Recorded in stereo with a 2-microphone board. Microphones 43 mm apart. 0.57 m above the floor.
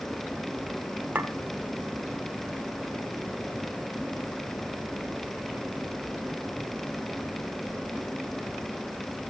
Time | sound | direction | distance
1.1 | a clink | 40° right (ahead or behind) | 0.9 m